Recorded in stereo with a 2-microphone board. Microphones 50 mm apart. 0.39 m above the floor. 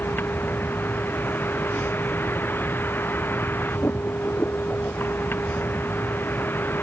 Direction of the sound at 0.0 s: 45° left (ahead or behind).